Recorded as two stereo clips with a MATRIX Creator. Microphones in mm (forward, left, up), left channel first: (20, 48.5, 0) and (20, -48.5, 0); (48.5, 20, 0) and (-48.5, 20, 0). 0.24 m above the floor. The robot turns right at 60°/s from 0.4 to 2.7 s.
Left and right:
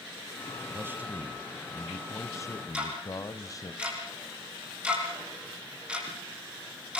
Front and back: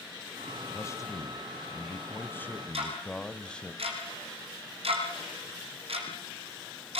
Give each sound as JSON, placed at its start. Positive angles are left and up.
{"t": 0.7, "sound": "a man speaking", "azimuth_deg": -45, "distance_m": 1.8}
{"t": 2.7, "sound": "ticking", "azimuth_deg": -170, "distance_m": 6.5}